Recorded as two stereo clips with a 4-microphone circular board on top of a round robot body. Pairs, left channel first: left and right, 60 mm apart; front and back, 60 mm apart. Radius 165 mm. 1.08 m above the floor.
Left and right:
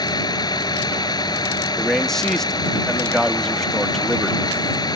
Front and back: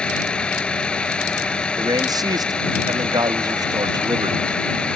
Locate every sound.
0.0 s a vehicle: 80° left
1.8 s a man speaking: 175° left